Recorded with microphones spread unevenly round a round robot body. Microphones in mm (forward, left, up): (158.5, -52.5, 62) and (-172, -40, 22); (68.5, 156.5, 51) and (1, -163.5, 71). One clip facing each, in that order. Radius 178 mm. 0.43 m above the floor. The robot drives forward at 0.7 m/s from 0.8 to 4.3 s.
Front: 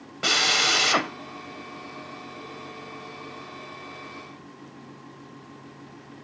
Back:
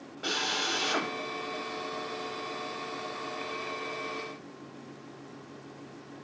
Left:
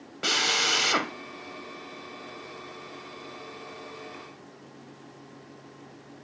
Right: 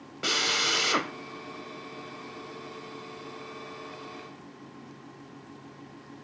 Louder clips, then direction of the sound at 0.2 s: Front 5 dB, left 1 dB; 10° right.